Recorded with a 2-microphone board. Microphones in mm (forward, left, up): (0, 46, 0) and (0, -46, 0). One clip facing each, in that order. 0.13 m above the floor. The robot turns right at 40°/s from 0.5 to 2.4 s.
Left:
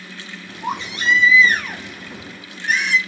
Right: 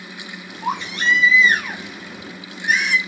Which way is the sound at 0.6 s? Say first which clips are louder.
Right 1 dB; 80° right.